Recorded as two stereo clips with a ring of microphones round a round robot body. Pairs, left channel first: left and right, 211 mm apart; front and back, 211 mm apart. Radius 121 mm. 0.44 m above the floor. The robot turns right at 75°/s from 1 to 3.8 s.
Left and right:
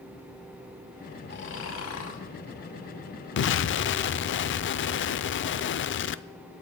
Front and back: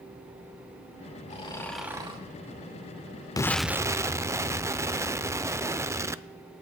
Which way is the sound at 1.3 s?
55° left.